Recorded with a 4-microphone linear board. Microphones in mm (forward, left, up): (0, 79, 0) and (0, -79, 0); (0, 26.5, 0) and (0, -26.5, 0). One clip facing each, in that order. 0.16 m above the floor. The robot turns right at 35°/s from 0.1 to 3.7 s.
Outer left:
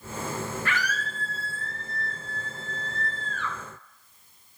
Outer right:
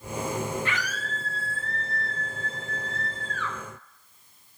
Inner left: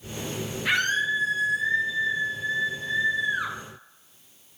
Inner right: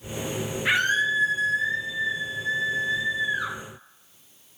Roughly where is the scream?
Ahead right.